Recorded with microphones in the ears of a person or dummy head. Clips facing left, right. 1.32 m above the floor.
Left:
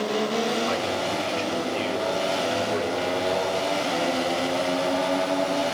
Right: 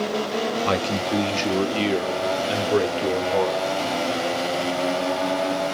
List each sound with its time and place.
0.7 s a man speaking: 65° right (ahead or behind), 3 m